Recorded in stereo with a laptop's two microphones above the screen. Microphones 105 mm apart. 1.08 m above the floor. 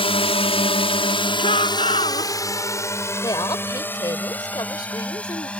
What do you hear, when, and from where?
0.0 s a drone: 60° left (ahead or behind); by 5.6 s 10° left (ahead or behind)
1.4 s a shout: 70° left (ahead or behind)
3.2 s a woman speaking: 40° left (ahead or behind)